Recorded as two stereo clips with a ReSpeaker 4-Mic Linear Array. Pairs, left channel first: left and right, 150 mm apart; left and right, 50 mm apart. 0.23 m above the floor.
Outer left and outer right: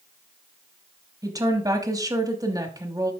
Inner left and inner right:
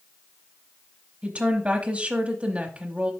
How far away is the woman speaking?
About 1.0 m.